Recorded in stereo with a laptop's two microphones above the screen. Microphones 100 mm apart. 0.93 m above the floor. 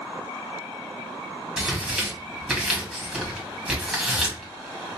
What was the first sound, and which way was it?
Tearing paper, 5° right (ahead or behind).